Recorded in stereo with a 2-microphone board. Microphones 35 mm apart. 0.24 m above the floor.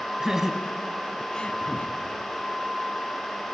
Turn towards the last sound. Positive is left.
turn(degrees=35)  # may be behind; listen again after turning